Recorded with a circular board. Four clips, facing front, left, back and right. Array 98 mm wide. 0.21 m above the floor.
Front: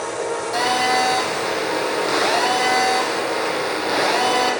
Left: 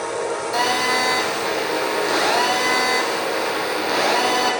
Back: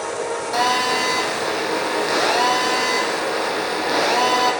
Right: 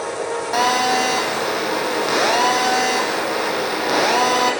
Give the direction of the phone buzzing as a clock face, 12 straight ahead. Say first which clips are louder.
Right 4 dB, even; 4 o'clock.